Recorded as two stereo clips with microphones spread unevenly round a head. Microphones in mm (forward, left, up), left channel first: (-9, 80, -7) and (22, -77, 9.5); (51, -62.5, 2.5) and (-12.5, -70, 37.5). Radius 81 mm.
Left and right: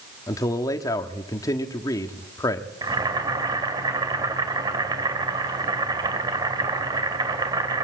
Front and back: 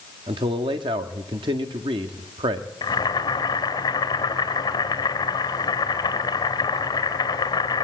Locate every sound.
0.3 s a man speaking: 170° left, 1.4 m
2.8 s boiling: 15° right, 2.5 m